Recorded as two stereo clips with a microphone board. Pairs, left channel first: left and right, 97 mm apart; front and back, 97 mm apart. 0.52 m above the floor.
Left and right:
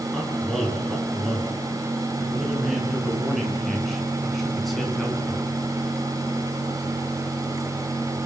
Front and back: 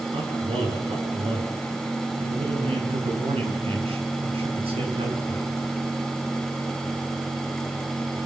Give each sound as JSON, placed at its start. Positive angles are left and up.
{"t": 0.1, "sound": "a man speaking", "azimuth_deg": -175, "distance_m": 9.0}